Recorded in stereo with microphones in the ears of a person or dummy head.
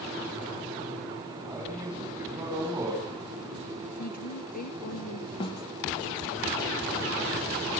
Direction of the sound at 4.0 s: 55° left (ahead or behind).